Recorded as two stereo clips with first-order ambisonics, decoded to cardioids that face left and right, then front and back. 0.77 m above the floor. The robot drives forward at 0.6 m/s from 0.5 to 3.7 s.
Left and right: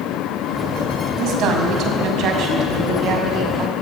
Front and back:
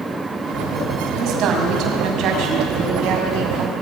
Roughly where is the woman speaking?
Behind right.